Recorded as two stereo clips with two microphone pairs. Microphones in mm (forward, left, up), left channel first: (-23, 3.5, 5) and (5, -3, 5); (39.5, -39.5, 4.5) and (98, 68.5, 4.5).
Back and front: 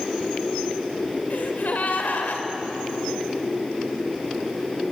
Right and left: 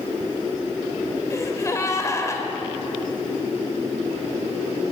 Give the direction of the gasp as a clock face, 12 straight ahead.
6 o'clock.